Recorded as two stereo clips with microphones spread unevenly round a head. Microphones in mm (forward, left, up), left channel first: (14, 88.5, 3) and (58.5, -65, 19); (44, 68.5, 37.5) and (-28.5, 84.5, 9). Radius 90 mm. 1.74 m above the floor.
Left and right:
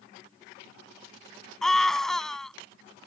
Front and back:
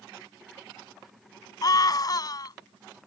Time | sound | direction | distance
1.6 | a scream | 20° left | ?